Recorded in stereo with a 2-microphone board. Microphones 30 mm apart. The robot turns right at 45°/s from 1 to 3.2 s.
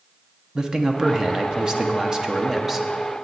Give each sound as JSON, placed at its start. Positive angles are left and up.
{"t": 0.6, "sound": "a man speaking", "side_deg": -20, "distance_m": 0.7}